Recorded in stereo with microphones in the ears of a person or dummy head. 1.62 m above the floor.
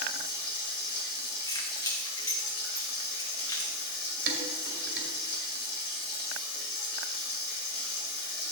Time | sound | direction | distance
0.0 | running water | 60° left (ahead or behind) | 1.8 m
1.5 | keys jangling | 25° left (ahead or behind) | 1.4 m
4.3 | dishes clattering | 65° right (ahead or behind) | 2 m